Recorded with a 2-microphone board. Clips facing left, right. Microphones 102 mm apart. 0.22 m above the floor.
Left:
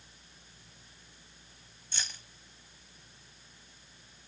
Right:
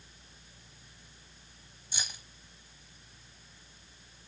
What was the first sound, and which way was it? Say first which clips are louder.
Keys jangling: right 1 dB; 15° right (ahead or behind).